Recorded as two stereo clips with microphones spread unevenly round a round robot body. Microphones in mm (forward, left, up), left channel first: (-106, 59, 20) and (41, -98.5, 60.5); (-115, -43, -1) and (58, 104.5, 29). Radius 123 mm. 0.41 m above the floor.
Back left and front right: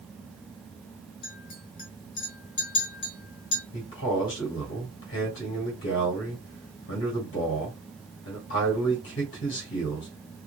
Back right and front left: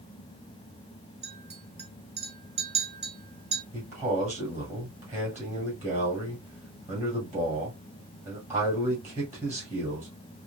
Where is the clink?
105° left, 1.8 m.